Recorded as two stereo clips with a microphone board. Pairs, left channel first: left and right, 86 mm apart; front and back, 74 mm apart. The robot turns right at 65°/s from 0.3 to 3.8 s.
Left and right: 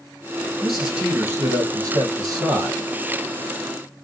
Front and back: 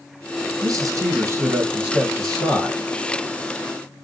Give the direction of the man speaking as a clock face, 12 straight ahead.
6 o'clock.